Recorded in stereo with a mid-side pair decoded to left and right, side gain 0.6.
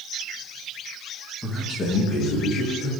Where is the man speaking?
10° left, 1.0 m; by 2.9 s 75° left, 2.5 m.